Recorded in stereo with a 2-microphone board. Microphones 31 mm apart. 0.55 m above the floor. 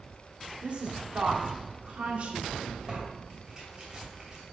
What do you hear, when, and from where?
0.6 s a woman speaking: 45° right (ahead or behind), 1.2 m
2.9 s tearing paper: 25° right (ahead or behind), 2.5 m